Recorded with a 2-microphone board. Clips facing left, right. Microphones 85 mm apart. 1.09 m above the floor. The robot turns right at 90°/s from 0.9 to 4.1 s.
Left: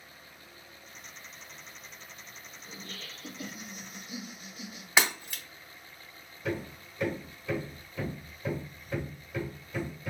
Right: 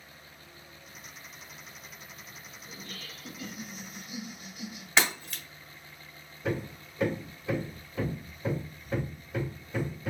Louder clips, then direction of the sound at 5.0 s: Even; 10° left (ahead or behind).